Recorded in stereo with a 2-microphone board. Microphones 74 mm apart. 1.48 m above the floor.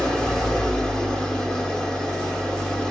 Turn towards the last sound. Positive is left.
turn(degrees=10)  # may be behind; listen again after turning